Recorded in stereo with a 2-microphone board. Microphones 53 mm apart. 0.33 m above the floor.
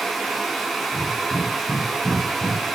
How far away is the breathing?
About 9.5 m.